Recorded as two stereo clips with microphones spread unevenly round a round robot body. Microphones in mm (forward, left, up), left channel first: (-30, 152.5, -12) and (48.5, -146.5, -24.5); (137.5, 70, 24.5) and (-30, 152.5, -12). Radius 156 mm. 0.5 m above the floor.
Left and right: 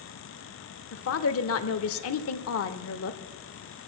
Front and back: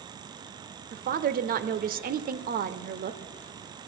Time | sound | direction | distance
0.9 | a woman speaking | 145° left | 1.1 m